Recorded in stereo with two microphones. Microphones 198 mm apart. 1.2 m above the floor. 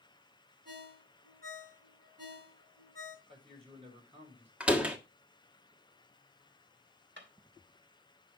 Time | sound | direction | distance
0.7 | a ringtone | 50° right (ahead or behind) | 8.5 m
3.3 | a man speaking | 30° right (ahead or behind) | 5.5 m
4.6 | a door slam | 5° right (ahead or behind) | 1.5 m
7.2 | a drawer | 65° right (ahead or behind) | 3 m